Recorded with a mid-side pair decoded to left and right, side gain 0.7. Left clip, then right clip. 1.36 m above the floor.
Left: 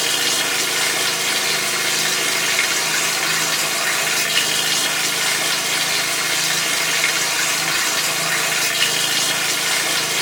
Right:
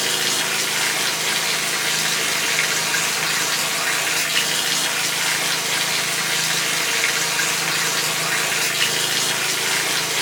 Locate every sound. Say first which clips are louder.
0.0 s running water: left 2 dB; straight ahead, 1.4 m